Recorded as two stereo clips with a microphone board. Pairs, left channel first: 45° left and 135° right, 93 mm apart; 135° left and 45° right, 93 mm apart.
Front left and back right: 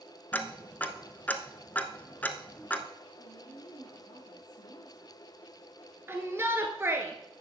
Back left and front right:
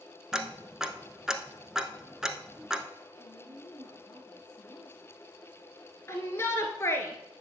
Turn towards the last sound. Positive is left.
turn(degrees=175)